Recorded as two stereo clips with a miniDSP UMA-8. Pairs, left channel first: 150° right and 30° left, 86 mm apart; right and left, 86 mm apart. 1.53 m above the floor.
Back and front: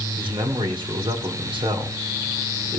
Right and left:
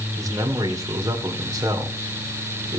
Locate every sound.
0.2 s a man speaking: 40° left, 2 m